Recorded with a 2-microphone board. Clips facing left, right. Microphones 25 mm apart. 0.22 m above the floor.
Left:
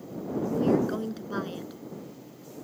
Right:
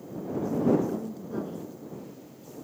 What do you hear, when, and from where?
0.5 s a woman speaking: 60° left (ahead or behind)